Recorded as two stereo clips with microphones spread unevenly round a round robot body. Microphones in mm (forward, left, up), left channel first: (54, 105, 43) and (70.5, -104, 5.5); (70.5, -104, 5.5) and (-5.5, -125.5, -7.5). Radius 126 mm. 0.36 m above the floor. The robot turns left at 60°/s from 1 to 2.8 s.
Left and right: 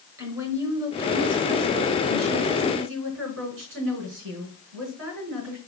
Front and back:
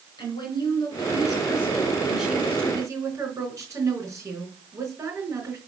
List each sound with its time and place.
0.2 s a woman speaking: 10° right, 4 m; by 5.6 s 115° right, 4 m